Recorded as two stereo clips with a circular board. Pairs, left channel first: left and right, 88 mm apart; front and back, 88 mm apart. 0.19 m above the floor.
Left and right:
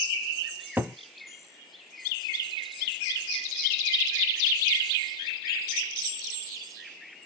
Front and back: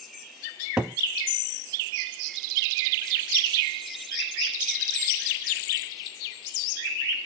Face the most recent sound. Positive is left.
turn(degrees=-120)